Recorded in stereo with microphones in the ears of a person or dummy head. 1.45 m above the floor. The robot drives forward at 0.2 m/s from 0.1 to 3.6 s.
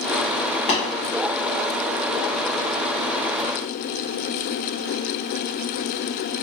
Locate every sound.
0.7 s tapping: 30° left (ahead or behind), 0.9 m